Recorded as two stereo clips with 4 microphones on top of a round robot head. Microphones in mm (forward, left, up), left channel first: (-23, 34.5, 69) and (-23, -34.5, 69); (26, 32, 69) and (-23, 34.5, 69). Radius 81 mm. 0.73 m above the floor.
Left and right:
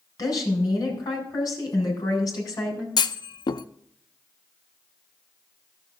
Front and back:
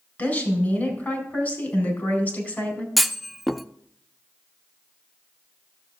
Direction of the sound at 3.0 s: 85° left.